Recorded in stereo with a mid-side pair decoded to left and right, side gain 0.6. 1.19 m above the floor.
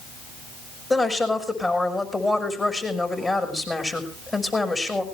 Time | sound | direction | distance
0.9 | a woman speaking | 25° left | 6 m